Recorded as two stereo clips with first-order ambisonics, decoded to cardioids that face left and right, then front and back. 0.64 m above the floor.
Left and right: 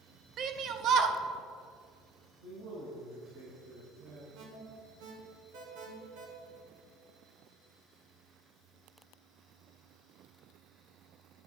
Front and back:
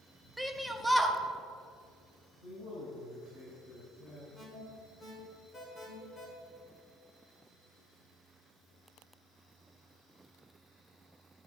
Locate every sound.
0.4 s a shout: 90° right, 0.7 m
2.4 s a man speaking: 75° right, 3 m
4.3 s an alarm: 75° right, 1.7 m